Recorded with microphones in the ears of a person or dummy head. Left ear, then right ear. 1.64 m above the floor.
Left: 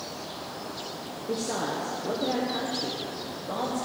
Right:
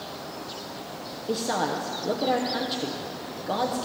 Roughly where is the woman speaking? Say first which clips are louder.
Right 4 dB; right.